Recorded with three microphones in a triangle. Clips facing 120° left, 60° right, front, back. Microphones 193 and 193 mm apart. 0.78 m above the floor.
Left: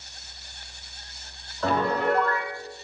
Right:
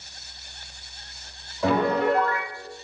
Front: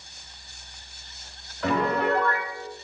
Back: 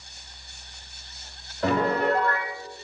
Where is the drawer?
No drawer in this recording.